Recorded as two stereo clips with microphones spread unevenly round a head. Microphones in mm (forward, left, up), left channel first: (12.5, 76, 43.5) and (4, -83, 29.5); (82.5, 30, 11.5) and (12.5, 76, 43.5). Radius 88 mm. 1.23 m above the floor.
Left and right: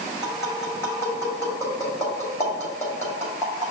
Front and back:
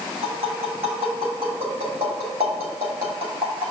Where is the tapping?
160° left, 2.5 m.